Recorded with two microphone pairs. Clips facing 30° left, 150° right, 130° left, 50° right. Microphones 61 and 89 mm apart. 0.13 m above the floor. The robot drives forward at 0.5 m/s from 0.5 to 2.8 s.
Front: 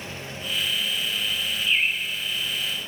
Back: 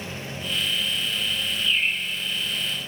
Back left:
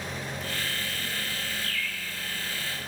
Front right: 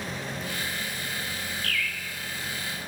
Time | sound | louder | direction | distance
1.6 | a bird | front 1 dB, front right 3 dB | 70° left | 7.5 m